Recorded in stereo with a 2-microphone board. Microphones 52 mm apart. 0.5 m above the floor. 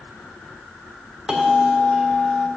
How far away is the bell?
About 1.7 m.